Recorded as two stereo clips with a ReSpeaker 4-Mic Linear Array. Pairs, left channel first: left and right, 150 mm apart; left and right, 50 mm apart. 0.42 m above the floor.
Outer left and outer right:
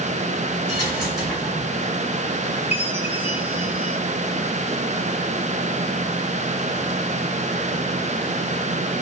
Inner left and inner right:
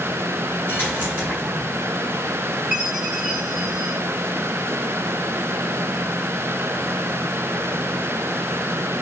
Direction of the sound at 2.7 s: 10° right (ahead or behind).